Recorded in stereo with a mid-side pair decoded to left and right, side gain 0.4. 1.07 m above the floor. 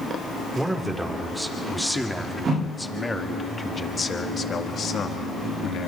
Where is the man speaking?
15° right, 3.5 m; by 5.9 s 75° left, 2 m.